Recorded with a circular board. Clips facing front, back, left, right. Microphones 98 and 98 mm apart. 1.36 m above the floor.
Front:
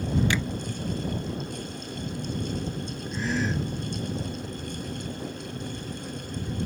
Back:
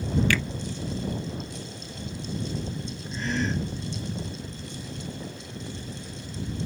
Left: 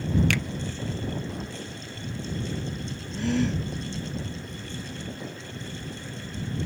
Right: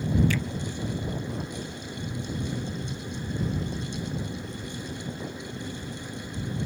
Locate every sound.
0.3 s a finger snap: 70° left
3.1 s a gasp: 90° left